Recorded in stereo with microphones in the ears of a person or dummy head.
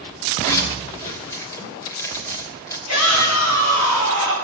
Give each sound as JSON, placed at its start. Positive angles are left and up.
{"t": 0.4, "sound": "a zipper", "side_deg": 20, "distance_m": 3.0}
{"t": 2.9, "sound": "a shout", "side_deg": 85, "distance_m": 7.0}